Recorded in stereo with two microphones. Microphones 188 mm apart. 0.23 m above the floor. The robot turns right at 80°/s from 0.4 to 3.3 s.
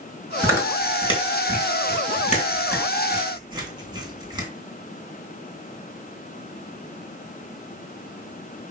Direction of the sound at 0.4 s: 20° right (ahead or behind).